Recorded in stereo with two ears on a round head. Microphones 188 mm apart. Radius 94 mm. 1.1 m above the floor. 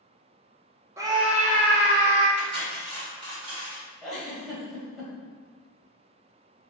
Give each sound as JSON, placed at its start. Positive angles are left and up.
{"t": 1.0, "sound": "a scream", "side_deg": -15, "distance_m": 0.7}
{"t": 2.4, "sound": "cutlery clinking", "side_deg": -75, "distance_m": 1.5}
{"t": 4.0, "sound": "a giggle", "side_deg": 0, "distance_m": 1.0}